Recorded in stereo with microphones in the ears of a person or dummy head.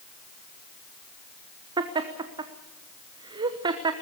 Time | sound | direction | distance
1.8 | laughter | 30° right (ahead or behind) | 1.0 m